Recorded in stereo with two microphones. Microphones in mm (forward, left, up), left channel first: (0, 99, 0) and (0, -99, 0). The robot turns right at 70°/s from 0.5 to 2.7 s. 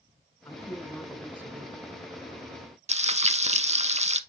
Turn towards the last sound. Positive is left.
turn(degrees=-35)  # may be behind; listen again after turning